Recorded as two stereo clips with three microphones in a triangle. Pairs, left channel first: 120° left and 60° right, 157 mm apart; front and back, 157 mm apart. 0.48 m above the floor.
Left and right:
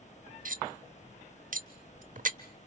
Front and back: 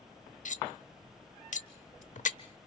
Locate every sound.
0.5 s cutlery clinking: 35° right, 0.9 m